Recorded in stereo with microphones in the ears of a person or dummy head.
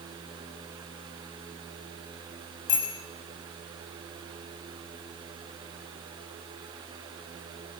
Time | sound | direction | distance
2.7 | a bicycle bell | 20° left (ahead or behind) | 6.5 m